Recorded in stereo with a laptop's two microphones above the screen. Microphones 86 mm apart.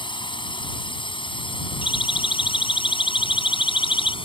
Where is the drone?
65° left (ahead or behind); by 4.2 s 80° left.